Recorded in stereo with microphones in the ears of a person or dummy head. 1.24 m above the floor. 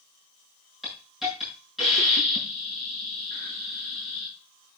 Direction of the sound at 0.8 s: Centre (ahead or behind).